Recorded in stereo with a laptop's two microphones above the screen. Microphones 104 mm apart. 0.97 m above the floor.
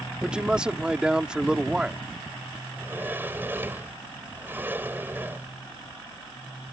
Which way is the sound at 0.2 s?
10° right (ahead or behind).